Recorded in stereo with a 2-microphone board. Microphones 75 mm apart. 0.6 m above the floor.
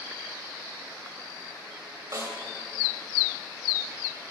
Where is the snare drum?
40° right (ahead or behind), 2.5 m.